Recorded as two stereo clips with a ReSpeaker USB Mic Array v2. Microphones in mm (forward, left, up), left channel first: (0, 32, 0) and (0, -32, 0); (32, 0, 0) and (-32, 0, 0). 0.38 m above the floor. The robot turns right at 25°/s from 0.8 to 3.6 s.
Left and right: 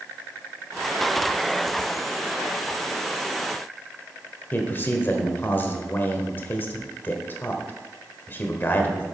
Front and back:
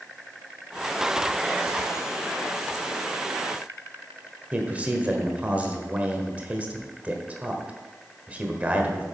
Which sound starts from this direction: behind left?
A man speaking, at 4.5 s.